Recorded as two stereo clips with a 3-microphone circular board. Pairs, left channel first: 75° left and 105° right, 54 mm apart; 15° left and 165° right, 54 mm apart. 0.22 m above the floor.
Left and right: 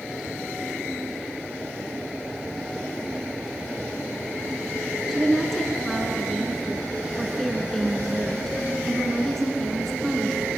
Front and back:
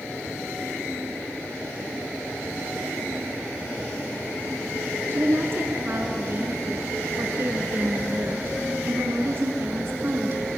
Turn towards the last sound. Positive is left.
turn(degrees=160)